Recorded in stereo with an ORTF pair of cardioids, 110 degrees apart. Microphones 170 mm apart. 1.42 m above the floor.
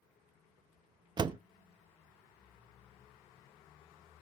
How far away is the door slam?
About 0.8 m.